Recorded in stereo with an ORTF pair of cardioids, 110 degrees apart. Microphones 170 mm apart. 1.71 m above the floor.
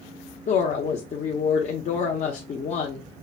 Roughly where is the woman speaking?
Ahead left.